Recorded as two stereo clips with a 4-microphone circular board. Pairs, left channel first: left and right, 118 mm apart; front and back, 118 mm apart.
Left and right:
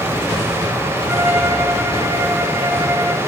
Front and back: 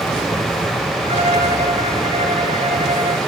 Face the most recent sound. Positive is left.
turn(degrees=-155)